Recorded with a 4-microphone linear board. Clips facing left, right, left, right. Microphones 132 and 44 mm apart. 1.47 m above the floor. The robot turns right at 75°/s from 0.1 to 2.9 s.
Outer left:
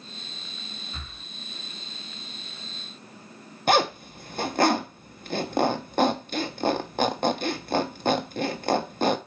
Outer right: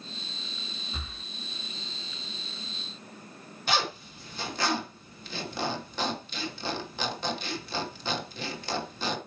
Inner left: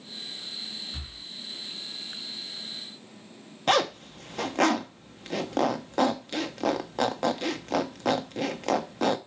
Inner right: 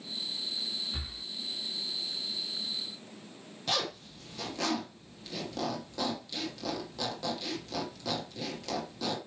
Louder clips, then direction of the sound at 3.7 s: Outer left 8 dB, inner left 10 dB; 55° left (ahead or behind).